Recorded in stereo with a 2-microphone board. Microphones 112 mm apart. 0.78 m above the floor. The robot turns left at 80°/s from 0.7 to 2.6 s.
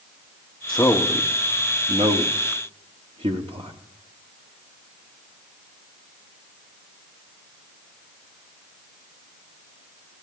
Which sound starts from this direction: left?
A man speaking, at 0.7 s.